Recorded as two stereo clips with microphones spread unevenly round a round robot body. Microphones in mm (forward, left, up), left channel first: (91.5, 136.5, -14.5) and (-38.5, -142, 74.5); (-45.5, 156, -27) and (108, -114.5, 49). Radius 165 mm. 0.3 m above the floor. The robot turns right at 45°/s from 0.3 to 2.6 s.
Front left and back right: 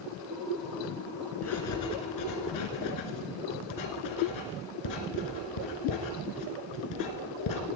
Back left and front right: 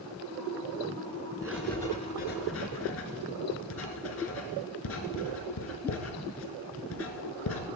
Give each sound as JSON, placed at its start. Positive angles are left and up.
{"t": 1.4, "sound": "writing", "azimuth_deg": 25, "distance_m": 2.5}